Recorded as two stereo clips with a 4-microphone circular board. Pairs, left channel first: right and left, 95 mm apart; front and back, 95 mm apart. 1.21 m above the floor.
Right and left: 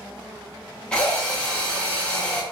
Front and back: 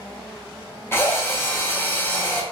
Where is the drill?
25° right, 0.6 m.